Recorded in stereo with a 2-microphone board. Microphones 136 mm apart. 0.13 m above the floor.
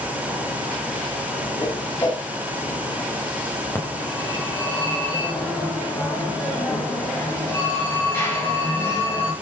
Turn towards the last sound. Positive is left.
turn(degrees=15)  # may be behind; listen again after turning